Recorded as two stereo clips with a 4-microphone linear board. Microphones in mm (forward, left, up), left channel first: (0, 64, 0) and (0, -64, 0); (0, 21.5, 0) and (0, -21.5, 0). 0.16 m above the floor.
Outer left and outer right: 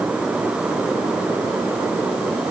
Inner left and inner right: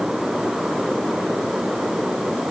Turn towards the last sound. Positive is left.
No sound to turn to.